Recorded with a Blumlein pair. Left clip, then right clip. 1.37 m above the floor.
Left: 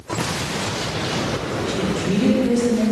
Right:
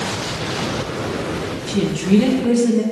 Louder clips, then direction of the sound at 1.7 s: Right 5 dB; 25° right.